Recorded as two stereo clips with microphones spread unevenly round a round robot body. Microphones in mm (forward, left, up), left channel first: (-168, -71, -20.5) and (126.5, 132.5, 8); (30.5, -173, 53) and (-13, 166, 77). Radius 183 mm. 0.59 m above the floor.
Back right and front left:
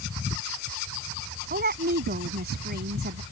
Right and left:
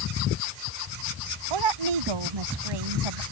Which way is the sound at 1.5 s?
100° left.